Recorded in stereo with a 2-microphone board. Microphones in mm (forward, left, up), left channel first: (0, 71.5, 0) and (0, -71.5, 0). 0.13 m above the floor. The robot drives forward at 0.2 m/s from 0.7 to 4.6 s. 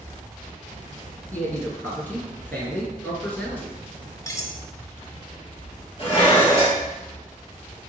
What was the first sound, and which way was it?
A man speaking, 15° left (ahead or behind).